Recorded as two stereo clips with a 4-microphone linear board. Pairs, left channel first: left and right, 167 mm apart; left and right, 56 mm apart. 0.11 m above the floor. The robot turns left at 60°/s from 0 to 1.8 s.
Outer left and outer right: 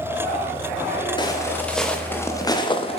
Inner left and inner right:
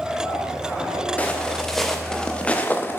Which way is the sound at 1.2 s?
25° left (ahead or behind).